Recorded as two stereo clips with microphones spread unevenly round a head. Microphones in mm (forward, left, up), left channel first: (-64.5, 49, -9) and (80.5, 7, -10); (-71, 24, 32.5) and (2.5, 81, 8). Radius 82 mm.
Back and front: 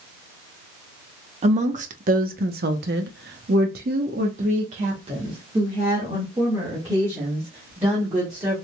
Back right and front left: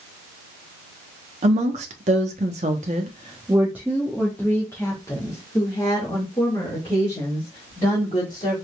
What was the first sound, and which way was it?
A woman speaking, 30° left.